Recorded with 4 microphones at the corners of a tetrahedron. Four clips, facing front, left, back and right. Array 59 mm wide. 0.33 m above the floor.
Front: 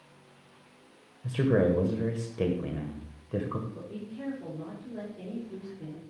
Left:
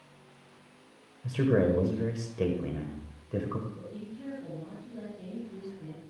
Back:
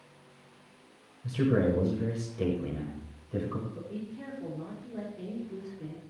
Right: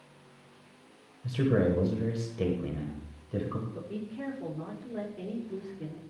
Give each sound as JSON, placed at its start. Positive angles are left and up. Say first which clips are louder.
{"t": 1.2, "sound": "a man speaking", "louder": "left 1 dB, front 2 dB", "azimuth_deg": 30, "distance_m": 1.5}
{"t": 3.7, "sound": "a woman speaking", "louder": "right 4 dB, even", "azimuth_deg": -85, "distance_m": 7.5}